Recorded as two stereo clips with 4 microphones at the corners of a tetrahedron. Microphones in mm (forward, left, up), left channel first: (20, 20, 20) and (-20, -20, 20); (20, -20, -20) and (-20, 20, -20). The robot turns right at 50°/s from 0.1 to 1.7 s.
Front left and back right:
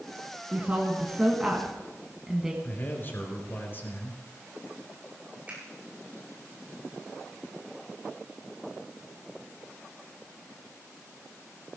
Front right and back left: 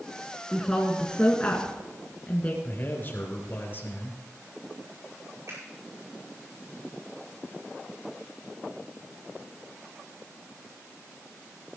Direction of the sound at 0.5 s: 125° right.